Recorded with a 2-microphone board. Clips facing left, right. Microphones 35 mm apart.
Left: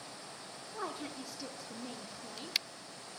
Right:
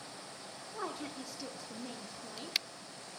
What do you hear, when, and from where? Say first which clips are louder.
0.7 s a woman speaking: even; centre (ahead or behind), 0.7 m